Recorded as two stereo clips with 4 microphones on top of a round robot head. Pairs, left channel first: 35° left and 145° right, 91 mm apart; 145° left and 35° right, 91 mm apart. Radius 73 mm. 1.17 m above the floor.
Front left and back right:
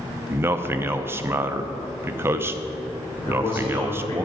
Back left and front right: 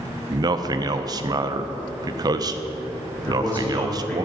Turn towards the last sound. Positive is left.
turn(degrees=75)